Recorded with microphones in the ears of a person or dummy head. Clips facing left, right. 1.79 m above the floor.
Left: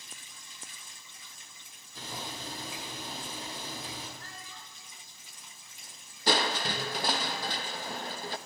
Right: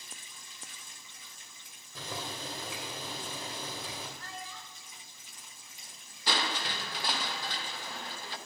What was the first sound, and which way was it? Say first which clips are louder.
Boiling: right 1 dB; 65° right (ahead or behind).